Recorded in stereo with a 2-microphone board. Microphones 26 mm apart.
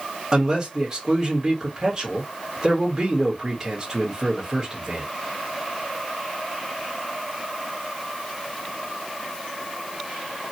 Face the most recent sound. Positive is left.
turn(degrees=-20)  # may be behind; listen again after turning